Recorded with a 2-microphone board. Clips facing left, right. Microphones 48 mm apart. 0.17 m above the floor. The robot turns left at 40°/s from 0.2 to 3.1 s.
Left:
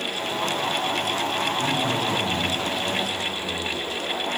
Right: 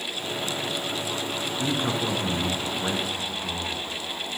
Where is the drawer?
I don't hear a drawer.